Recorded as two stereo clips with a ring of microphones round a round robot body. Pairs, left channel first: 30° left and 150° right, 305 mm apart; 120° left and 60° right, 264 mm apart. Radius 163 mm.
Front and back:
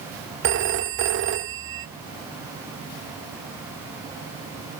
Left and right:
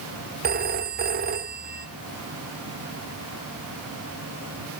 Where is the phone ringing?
110° right, 0.8 m.